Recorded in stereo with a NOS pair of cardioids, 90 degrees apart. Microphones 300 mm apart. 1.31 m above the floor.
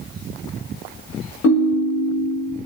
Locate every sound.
1.4 s a ringtone: 55° left, 0.6 m